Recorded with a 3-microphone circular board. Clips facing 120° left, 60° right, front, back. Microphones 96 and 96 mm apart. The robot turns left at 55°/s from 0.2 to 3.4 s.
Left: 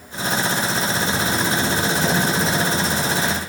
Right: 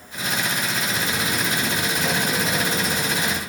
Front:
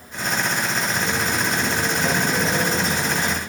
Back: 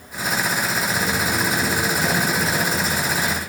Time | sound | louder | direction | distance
0.9 | footsteps | left 4 dB, back 1 dB | 130° right | 1.1 m